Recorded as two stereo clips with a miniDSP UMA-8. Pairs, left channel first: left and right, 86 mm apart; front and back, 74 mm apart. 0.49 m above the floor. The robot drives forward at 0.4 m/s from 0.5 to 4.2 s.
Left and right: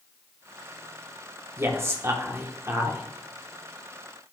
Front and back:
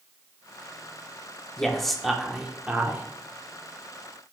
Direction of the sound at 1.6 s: 70° right.